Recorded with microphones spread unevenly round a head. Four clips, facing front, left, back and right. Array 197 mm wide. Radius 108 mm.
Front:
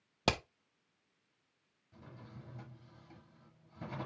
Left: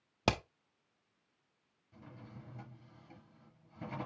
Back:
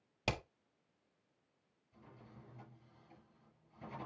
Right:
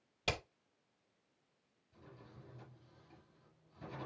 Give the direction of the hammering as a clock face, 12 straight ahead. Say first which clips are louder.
Left 7 dB, front 6 dB; 10 o'clock.